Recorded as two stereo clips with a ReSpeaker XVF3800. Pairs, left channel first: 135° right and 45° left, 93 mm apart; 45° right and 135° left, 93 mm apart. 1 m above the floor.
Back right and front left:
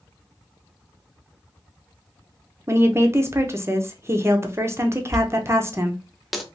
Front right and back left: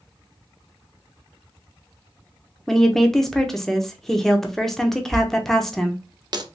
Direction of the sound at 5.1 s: 135° left.